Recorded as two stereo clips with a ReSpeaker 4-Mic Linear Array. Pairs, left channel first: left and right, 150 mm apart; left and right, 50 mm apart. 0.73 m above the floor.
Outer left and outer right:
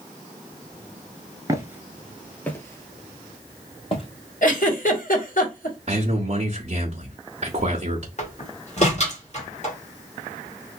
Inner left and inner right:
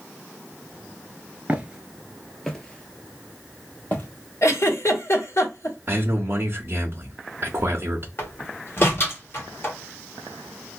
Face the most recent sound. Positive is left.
turn(degrees=50)  # may be behind; listen again after turning